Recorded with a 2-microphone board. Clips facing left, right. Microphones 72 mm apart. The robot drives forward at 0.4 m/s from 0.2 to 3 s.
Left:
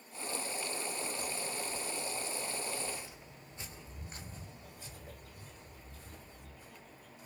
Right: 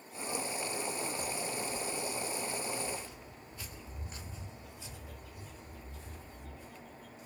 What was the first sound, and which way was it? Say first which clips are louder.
Footsteps: right 2 dB; 10° right (ahead or behind).